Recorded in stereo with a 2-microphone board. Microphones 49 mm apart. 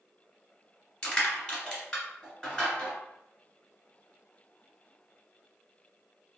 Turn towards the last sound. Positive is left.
turn(degrees=20)  # may be behind; listen again after turning